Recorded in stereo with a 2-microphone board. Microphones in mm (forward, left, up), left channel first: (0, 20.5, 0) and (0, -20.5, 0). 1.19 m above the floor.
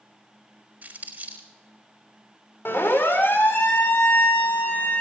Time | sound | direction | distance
0.8 | crumpling | 45° right (ahead or behind) | 4 m
2.6 | a siren | 70° left (ahead or behind) | 3.5 m